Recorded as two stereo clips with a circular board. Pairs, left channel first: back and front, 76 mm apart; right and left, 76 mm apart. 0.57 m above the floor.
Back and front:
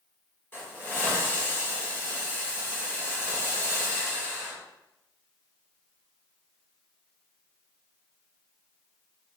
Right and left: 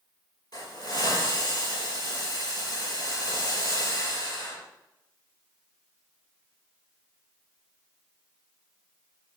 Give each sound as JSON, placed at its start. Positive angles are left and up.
{"t": 0.5, "sound": "a hiss", "azimuth_deg": -120, "distance_m": 5.5}